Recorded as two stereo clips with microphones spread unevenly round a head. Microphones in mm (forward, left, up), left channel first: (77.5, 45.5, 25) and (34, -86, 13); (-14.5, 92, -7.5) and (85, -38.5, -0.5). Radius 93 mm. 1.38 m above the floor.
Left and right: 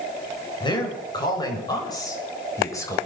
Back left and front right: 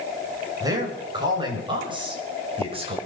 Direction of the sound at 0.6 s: 15° left.